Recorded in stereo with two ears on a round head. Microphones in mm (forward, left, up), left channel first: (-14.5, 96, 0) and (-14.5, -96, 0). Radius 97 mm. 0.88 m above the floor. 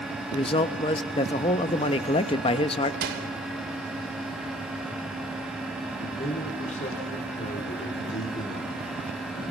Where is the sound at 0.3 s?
25° left (ahead or behind), 0.6 m.